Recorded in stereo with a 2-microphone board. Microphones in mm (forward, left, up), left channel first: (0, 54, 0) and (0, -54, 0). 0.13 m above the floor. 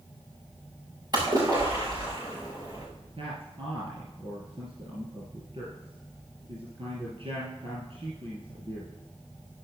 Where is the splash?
40° right (ahead or behind), 5.5 m.